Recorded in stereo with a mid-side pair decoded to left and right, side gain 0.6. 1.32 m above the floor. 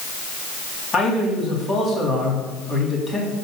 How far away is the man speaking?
About 3.5 m.